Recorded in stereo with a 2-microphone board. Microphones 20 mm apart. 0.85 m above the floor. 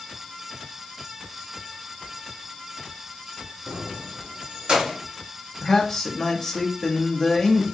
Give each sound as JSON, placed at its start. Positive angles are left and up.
{"t": 3.7, "sound": "keys jangling", "side_deg": -55, "distance_m": 0.7}
{"t": 5.6, "sound": "a man speaking", "side_deg": 20, "distance_m": 1.2}